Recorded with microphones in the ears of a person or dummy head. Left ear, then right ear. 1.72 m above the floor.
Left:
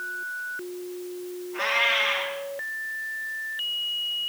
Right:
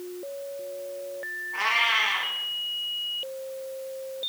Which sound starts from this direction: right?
A cat meowing, at 1.5 s.